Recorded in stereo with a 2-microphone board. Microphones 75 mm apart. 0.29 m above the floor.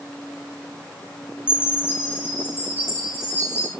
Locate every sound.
1.5 s a chime: 25° left (ahead or behind), 5 m